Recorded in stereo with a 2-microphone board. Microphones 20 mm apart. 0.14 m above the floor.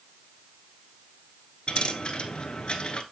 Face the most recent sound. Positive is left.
turn(degrees=55)  # may be behind; listen again after turning